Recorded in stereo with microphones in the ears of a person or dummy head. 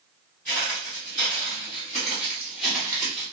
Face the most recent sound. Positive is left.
turn(degrees=-10)  # may be behind; listen again after turning